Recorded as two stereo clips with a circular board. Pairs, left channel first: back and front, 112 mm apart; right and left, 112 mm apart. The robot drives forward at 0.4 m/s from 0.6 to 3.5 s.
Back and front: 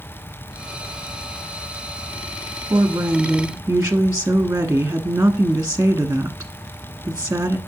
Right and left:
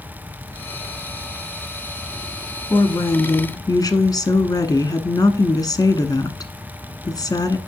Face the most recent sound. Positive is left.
turn(degrees=-65)